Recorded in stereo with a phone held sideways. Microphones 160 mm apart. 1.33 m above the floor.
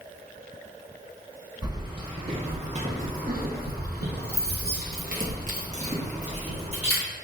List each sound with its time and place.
1.6 s keys jangling: 25° right (ahead or behind), 1.3 m; by 7.0 s 40° right (ahead or behind), 1.8 m